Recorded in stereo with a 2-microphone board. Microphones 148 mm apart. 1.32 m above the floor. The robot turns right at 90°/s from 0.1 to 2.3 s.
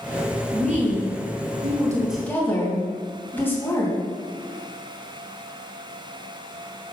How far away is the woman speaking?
About 2.5 m.